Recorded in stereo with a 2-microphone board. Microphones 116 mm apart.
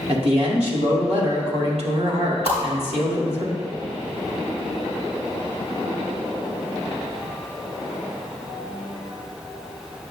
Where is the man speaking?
60° right (ahead or behind), 1.8 m.